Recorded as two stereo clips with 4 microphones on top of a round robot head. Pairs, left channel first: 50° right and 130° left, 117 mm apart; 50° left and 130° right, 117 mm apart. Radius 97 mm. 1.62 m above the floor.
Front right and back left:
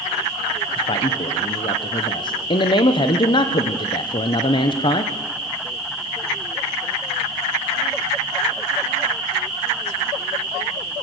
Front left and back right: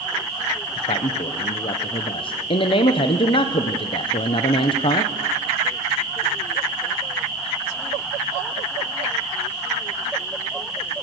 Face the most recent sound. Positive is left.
turn(degrees=5)